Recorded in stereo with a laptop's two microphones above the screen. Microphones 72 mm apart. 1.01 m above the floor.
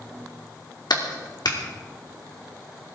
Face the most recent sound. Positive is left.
turn(degrees=75)  # may be behind; listen again after turning